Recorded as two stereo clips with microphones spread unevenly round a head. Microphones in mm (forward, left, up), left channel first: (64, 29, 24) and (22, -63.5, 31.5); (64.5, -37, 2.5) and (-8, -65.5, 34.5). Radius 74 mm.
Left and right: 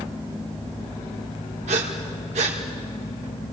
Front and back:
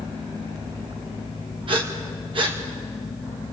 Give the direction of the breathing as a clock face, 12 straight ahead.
5 o'clock.